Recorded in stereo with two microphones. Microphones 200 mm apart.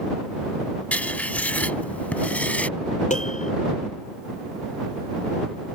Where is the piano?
35° left (ahead or behind).